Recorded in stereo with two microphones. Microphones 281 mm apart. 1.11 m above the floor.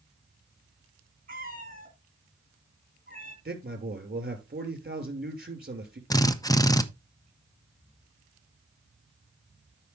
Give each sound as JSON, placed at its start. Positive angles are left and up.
{"t": 1.3, "sound": "a cat meowing", "side_deg": -30, "distance_m": 2.0}
{"t": 3.5, "sound": "a man speaking", "side_deg": -35, "distance_m": 2.5}
{"t": 6.1, "sound": "a drill", "side_deg": 15, "distance_m": 0.5}